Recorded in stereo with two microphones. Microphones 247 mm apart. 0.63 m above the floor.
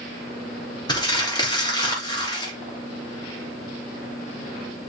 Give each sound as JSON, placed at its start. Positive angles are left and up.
{"t": 0.9, "sound": "crumpling", "side_deg": 15, "distance_m": 3.5}